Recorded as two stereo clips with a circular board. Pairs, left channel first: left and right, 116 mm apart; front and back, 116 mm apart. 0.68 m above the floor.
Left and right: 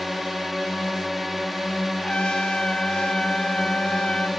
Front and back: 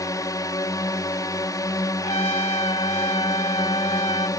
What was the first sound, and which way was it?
A drone, straight ahead.